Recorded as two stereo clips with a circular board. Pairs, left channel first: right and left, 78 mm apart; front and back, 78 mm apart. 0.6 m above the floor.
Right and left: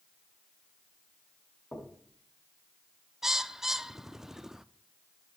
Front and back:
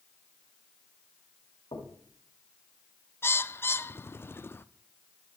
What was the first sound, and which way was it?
Knocking, 15° right.